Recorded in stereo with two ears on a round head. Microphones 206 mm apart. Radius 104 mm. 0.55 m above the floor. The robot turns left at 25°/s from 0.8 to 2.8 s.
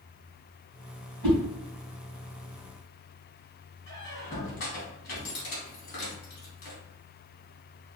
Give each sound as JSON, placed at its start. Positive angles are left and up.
{"t": 1.2, "sound": "a whoosh", "side_deg": 10, "distance_m": 1.9}
{"t": 3.9, "sound": "a squeak", "side_deg": 50, "distance_m": 1.4}